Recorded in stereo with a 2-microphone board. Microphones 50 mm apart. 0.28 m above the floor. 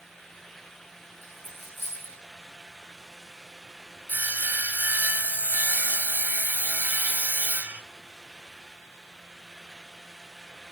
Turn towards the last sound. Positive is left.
turn(degrees=-35)  # may be behind; listen again after turning